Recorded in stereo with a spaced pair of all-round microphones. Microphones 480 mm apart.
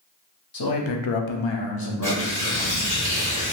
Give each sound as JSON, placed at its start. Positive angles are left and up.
{"t": 0.5, "sound": "a man speaking", "side_deg": 45, "distance_m": 0.7}
{"t": 2.0, "sound": "tearing paper", "side_deg": -40, "distance_m": 1.2}